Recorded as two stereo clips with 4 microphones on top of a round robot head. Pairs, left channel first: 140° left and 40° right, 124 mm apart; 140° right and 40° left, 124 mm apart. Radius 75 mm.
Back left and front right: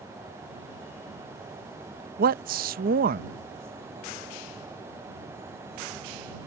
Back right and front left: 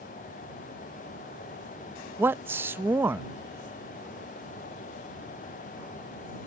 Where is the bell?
I don't hear a bell.